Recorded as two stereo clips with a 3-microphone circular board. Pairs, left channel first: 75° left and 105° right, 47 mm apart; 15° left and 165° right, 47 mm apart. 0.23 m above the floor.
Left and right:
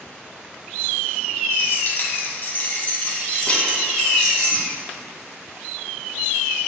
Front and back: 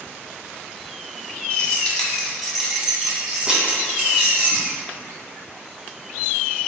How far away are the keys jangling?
About 1.0 m.